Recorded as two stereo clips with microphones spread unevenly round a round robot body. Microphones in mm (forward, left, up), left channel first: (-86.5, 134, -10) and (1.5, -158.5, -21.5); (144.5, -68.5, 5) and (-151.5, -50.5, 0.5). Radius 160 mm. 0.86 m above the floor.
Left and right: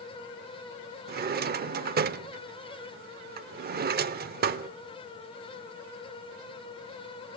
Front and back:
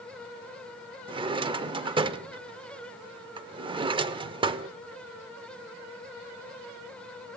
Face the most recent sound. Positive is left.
turn(degrees=-115)